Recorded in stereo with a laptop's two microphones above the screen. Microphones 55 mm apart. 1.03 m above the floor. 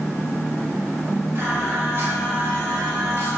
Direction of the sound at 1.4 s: 45° right (ahead or behind).